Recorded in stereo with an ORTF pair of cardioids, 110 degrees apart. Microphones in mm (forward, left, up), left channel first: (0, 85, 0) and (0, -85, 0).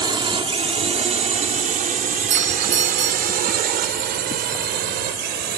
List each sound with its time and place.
0.0 s a drone: 30° right; by 5.6 s 80° right
2.3 s a doorbell: 45° right